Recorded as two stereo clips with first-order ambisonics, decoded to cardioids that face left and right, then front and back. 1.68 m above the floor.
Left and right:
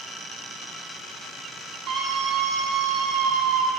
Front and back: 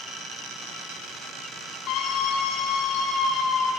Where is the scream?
45° right, 4.5 m; by 3.7 s 70° right, 4.5 m.